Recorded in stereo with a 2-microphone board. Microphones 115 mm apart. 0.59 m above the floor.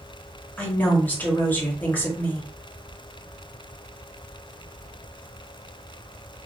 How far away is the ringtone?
No ringtone in this recording.